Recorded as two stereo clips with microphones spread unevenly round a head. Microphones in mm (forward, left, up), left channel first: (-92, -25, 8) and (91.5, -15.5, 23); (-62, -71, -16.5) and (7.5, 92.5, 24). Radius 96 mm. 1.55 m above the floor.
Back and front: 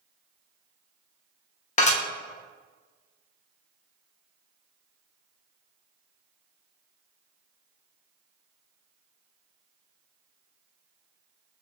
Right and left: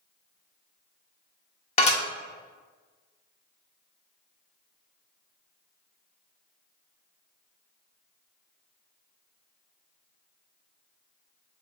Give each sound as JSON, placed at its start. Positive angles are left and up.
{"t": 1.8, "sound": "dishes clattering", "azimuth_deg": -160, "distance_m": 0.7}